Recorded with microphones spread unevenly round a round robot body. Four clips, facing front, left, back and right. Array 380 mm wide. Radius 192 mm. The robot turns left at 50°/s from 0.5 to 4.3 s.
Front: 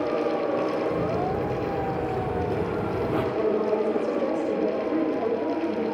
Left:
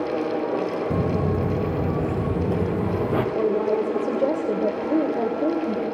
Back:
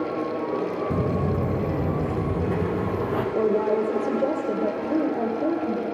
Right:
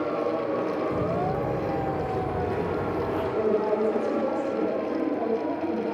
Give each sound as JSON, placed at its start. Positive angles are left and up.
{"t": 0.9, "sound": "footsteps", "azimuth_deg": 130, "distance_m": 1.5}
{"t": 3.4, "sound": "a woman speaking", "azimuth_deg": 165, "distance_m": 2.0}